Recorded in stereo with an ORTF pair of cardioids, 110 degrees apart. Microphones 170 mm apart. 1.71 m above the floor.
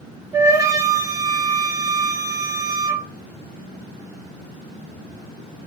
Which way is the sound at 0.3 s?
20° right.